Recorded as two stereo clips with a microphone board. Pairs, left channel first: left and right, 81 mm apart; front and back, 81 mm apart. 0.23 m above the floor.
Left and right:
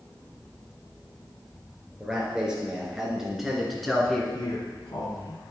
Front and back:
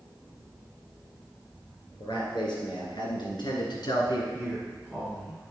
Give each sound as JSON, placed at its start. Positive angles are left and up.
{"t": 2.0, "sound": "a man speaking", "azimuth_deg": -10, "distance_m": 3.0}
{"t": 4.3, "sound": "a man speaking", "azimuth_deg": 60, "distance_m": 2.0}